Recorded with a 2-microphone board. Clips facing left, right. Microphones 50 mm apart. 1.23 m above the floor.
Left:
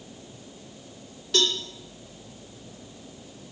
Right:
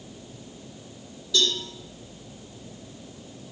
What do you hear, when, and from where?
1.3 s a cowbell: 55° left (ahead or behind), 3 m